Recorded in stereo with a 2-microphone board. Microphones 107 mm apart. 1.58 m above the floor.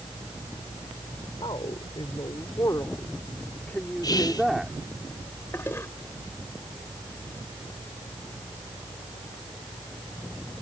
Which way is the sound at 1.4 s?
50° left (ahead or behind).